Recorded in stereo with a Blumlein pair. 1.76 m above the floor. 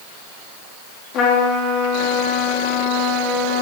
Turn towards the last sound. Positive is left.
turn(degrees=35)